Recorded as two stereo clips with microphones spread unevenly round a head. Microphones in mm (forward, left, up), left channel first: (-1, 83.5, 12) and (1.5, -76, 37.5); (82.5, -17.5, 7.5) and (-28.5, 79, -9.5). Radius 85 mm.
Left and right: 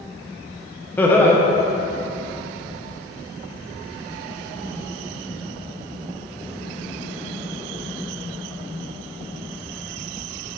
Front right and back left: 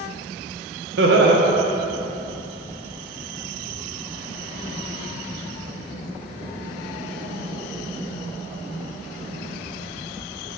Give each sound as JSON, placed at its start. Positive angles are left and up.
{"t": 1.0, "sound": "laughter", "azimuth_deg": 170, "distance_m": 0.5}